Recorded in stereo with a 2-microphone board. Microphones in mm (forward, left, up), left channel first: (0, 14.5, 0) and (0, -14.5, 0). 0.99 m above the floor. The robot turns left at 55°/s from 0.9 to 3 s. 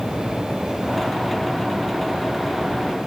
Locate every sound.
Only background noise.